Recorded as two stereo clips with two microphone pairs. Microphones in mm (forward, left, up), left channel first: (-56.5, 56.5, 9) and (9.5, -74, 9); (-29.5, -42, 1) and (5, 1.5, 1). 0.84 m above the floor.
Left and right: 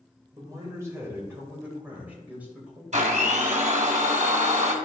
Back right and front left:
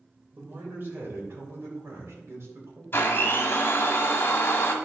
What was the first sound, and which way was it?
A man speaking, straight ahead.